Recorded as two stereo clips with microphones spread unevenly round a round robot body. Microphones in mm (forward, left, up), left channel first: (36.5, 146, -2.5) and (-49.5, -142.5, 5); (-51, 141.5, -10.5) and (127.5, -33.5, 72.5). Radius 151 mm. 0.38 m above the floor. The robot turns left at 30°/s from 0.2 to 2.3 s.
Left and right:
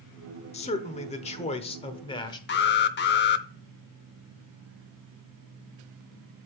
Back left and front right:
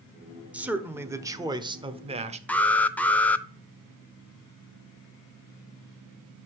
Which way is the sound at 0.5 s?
85° left.